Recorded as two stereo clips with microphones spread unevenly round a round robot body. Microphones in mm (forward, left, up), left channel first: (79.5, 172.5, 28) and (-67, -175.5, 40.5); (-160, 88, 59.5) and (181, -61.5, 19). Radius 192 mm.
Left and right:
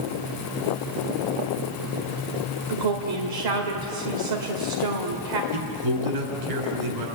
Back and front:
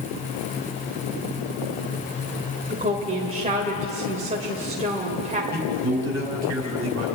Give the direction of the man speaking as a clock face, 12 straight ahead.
3 o'clock.